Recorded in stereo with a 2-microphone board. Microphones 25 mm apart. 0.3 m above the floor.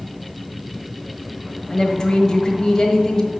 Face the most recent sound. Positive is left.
turn(degrees=30)  # may be behind; listen again after turning